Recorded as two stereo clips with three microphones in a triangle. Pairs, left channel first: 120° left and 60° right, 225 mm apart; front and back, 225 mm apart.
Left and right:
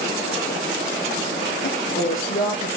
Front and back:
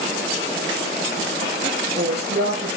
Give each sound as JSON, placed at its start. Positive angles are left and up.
{"t": 1.6, "sound": "a woman speaking", "azimuth_deg": 140, "distance_m": 4.5}